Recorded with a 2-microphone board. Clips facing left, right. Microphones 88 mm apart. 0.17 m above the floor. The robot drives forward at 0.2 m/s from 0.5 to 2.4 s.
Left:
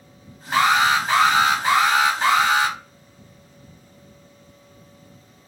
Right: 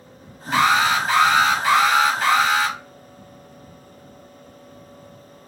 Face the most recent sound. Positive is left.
turn(degrees=25)  # may be behind; listen again after turning